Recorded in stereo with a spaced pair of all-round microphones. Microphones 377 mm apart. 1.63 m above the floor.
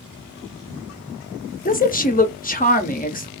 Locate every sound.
1.6 s a woman speaking: 25° left (ahead or behind), 0.6 m